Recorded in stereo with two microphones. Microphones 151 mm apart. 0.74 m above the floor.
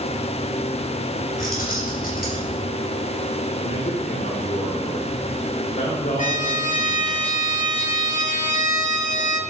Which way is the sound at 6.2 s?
55° left (ahead or behind).